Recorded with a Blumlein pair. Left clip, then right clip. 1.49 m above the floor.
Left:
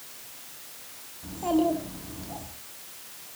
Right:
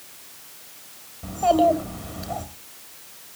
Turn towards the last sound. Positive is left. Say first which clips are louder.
# right 8 dB
turn(degrees=-65)